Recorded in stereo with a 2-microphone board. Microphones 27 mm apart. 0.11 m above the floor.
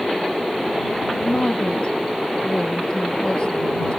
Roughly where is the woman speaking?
Left.